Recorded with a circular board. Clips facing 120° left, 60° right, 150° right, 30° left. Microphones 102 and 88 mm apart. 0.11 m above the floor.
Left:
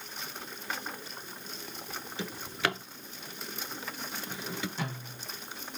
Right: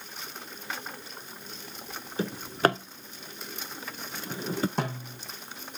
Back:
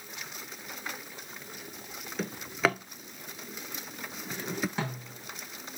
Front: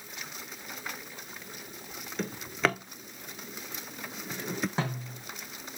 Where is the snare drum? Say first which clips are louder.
Right 6 dB, front 2 dB; 35° right, 6.5 m.